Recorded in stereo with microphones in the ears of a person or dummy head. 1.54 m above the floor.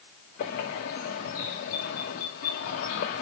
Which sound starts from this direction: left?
A bird, at 0.4 s.